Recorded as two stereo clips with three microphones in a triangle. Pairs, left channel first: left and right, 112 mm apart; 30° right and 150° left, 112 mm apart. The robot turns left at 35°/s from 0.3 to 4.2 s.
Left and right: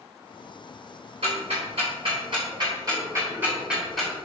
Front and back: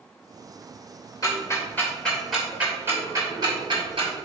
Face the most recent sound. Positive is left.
turn(degrees=175)